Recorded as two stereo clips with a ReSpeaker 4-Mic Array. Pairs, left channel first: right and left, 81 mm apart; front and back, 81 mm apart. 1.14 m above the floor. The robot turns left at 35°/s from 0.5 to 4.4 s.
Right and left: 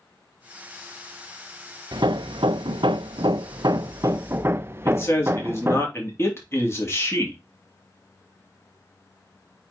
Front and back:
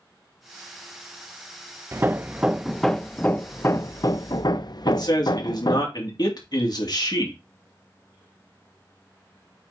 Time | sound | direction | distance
1.9 | hammering | 120° left | 0.5 m
4.8 | a man speaking | 30° right | 2.5 m